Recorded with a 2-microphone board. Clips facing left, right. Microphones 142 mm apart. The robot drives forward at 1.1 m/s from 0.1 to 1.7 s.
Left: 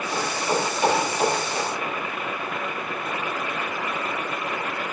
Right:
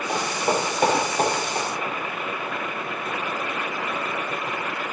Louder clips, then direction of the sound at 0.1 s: Right 2 dB; 60° right (ahead or behind).